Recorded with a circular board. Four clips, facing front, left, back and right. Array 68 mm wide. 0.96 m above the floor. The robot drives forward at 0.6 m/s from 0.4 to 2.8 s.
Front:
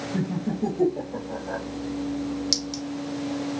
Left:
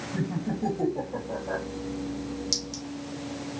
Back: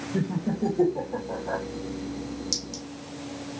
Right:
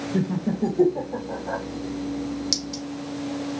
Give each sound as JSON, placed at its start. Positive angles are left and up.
{"t": 0.1, "sound": "laughter", "azimuth_deg": -95, "distance_m": 1.3}
{"t": 2.5, "sound": "a clink", "azimuth_deg": -35, "distance_m": 0.8}